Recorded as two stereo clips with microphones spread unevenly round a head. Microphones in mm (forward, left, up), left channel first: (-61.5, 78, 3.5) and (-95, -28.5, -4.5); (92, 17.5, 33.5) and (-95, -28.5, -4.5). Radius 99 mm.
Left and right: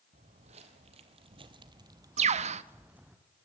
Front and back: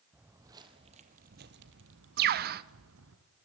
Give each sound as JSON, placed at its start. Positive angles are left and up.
{"t": 0.1, "sound": "footsteps", "azimuth_deg": -80, "distance_m": 1.9}
{"t": 2.2, "sound": "a bird", "azimuth_deg": -120, "distance_m": 0.5}